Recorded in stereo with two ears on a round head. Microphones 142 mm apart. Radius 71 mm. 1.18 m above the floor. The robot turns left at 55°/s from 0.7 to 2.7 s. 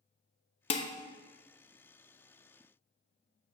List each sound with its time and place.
0.7 s dishes clattering: 40° left (ahead or behind), 0.5 m; by 0.9 s 45° left (ahead or behind), 0.5 m